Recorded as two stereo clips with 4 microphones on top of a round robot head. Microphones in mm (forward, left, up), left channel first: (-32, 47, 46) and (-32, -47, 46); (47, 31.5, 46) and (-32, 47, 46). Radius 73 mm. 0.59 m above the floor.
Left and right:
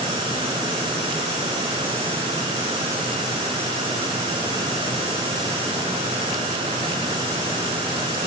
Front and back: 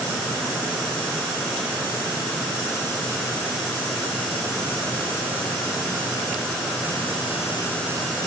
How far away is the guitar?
I don't hear a guitar.